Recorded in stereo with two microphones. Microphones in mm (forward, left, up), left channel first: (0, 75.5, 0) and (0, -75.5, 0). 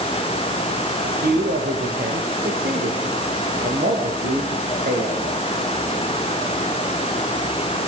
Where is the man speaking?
65° right (ahead or behind), 6.5 m; by 5.2 s 80° right, 7.5 m.